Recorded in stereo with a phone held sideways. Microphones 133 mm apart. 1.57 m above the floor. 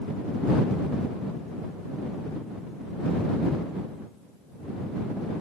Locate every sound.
Only background noise.